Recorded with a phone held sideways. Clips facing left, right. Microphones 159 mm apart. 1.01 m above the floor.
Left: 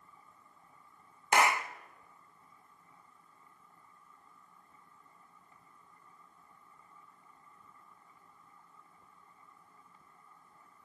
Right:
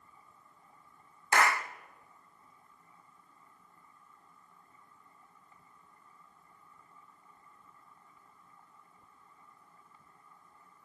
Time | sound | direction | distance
1.3 | a clap | 20° left (ahead or behind) | 0.8 m